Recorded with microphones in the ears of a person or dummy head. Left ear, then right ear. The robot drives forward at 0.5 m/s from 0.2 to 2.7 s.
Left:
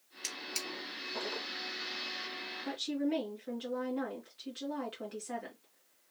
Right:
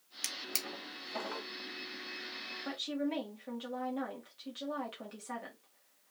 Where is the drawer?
55° right (ahead or behind), 1.5 m; by 1.5 s 45° right (ahead or behind), 1.8 m.